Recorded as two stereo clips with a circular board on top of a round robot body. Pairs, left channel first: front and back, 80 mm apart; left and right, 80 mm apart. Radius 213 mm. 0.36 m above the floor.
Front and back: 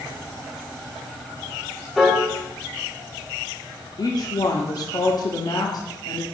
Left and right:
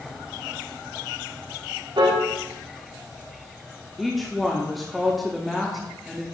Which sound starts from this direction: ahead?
A woman speaking, at 4.0 s.